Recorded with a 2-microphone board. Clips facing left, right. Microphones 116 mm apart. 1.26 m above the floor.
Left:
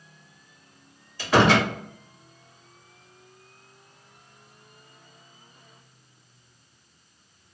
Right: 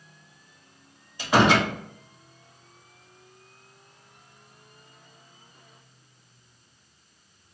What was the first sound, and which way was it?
A door slam, 20° right (ahead or behind).